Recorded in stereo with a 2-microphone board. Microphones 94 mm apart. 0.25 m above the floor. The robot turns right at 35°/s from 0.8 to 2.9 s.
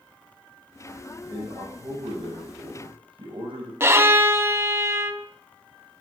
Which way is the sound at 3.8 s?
30° right (ahead or behind).